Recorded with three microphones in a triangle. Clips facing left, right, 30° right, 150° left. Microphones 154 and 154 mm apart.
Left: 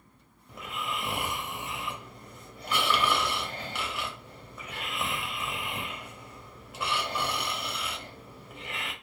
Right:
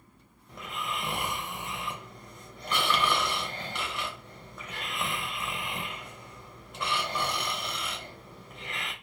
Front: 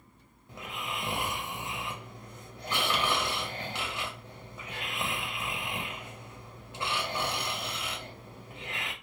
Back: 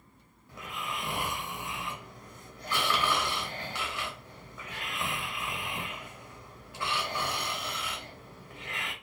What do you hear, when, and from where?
0.5 s snoring: 5° left, 0.7 m